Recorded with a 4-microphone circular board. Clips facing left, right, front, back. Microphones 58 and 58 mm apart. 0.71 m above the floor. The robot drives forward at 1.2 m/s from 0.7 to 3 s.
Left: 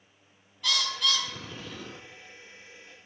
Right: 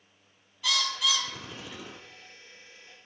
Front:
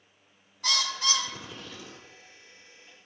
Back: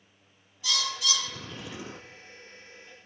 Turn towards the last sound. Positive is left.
turn(degrees=180)